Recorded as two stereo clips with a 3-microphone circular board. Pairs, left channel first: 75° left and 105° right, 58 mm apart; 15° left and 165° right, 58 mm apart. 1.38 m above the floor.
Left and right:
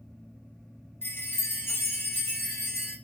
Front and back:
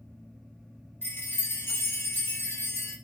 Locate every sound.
1.0 s a chime: 50° left, 0.5 m